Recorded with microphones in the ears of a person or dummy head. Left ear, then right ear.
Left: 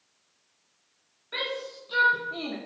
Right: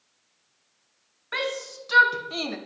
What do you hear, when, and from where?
1.3 s a shout: 55° right (ahead or behind), 2.5 m; by 2.6 s 85° right, 1.4 m